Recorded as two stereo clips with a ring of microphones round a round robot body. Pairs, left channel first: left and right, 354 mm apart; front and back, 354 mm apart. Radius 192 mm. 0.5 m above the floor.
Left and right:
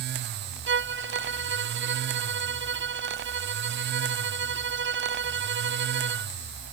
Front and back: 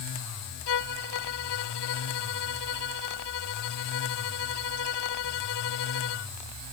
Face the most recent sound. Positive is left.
turn(degrees=-30)